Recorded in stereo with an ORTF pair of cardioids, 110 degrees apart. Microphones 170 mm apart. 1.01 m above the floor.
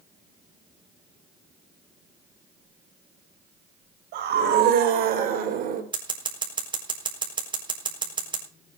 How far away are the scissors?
About 4 m.